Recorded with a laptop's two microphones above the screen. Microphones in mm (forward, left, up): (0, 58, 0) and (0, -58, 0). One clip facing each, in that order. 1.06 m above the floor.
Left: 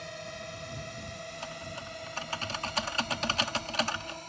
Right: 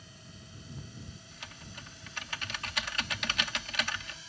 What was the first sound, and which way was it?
A drone, 75° left (ahead or behind).